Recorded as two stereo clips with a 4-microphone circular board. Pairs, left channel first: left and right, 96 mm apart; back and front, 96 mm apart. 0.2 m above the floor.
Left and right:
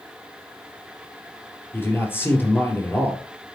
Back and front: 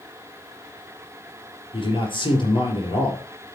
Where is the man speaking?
155° left, 3.5 m.